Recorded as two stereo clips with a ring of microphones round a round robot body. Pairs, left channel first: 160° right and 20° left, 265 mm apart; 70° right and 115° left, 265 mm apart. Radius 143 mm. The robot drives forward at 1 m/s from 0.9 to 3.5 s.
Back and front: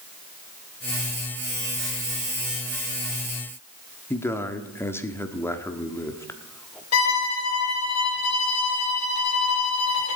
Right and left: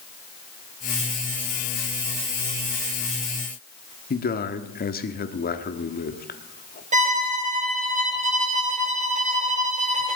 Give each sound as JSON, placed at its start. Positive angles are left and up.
{"t": 4.1, "sound": "a man speaking", "azimuth_deg": -85, "distance_m": 1.3}
{"t": 6.9, "sound": "a violin", "azimuth_deg": 175, "distance_m": 3.5}